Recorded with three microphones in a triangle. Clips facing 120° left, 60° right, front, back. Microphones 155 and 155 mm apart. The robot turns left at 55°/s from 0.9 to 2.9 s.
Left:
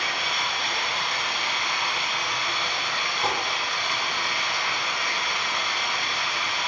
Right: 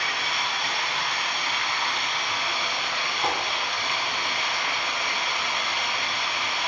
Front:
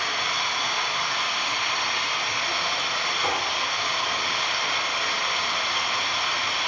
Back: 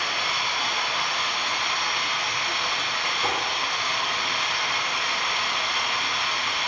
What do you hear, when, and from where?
0.0 s running water: 105° left, 1.2 m; by 6.7 s 5° right, 1.2 m
3.2 s tapping: 110° left, 1.6 m